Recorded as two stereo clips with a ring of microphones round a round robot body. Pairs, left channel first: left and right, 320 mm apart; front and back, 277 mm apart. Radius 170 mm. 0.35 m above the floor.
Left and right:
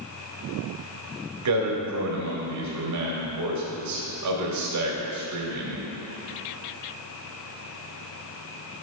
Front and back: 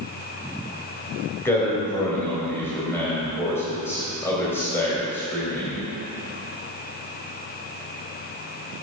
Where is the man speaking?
80° right, 2 m.